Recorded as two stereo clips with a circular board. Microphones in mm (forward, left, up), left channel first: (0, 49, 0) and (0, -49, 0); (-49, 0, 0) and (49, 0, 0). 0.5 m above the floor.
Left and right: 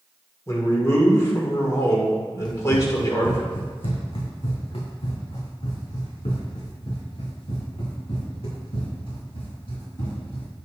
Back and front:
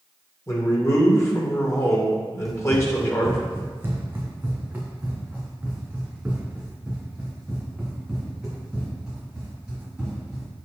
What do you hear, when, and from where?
0.5 s a man speaking: 135° left, 1.6 m
2.5 s running footsteps: 50° left, 1.4 m; by 10.5 s 85° left, 6 m